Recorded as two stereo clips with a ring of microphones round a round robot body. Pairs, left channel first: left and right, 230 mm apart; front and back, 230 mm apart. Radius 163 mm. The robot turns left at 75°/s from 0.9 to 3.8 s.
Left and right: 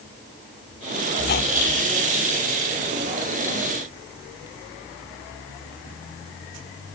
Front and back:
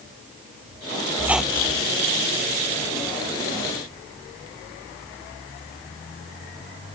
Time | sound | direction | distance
1.2 | a squeak | 110° left | ?